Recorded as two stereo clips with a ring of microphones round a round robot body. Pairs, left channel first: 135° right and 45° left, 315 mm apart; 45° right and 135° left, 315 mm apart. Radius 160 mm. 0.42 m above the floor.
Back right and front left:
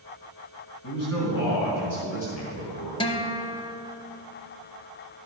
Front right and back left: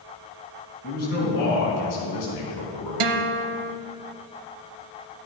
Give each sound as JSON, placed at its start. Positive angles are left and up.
{"t": 0.8, "sound": "a man speaking", "azimuth_deg": -110, "distance_m": 3.5}
{"t": 3.0, "sound": "a guitar", "azimuth_deg": 150, "distance_m": 0.8}